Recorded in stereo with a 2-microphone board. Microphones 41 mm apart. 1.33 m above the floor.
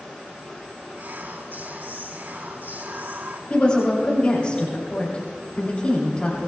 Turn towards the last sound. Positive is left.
turn(degrees=30)  # may be behind; listen again after turning